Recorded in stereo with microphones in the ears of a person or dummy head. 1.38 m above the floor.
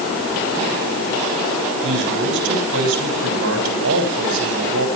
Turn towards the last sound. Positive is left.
turn(degrees=-80)